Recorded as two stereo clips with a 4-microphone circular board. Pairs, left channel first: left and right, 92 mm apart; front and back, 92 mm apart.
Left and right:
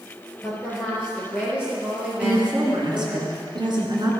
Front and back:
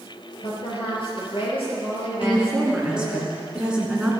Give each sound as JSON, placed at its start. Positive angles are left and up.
{"t": 0.4, "sound": "a woman speaking", "azimuth_deg": -15, "distance_m": 4.5}
{"t": 2.2, "sound": "a woman speaking", "azimuth_deg": -100, "distance_m": 2.5}